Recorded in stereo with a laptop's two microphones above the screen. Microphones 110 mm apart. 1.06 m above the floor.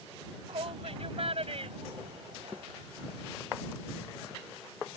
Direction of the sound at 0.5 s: 60° right (ahead or behind).